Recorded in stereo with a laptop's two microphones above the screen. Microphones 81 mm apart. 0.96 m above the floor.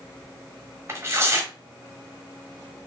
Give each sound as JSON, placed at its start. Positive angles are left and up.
{"t": 0.9, "sound": "tearing paper", "side_deg": -30, "distance_m": 0.9}